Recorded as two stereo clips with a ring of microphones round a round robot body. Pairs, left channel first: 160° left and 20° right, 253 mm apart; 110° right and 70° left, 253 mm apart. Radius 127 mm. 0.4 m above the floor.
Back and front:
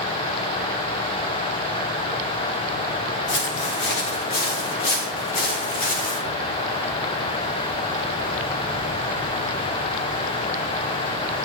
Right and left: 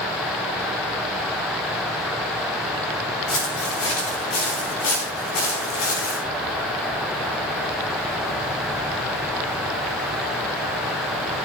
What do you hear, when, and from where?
3.3 s footsteps: 155° right, 5.5 m; by 6.2 s 140° right, 7.5 m